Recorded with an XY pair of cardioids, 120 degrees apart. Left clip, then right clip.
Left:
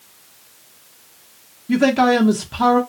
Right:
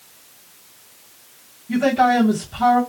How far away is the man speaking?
About 0.8 m.